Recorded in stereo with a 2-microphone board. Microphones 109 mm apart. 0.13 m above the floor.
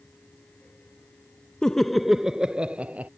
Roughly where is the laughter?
Centre.